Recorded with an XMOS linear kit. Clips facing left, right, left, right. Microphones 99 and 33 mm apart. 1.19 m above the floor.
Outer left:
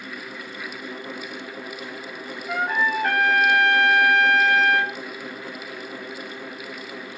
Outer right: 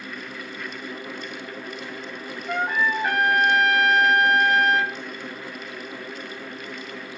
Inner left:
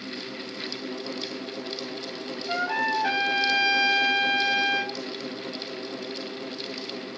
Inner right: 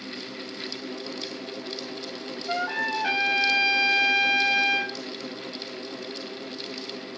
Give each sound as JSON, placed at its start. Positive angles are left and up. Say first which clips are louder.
{"t": 2.5, "sound": "a trumpet", "louder": "even, inner left 1 dB", "side_deg": -10, "distance_m": 1.1}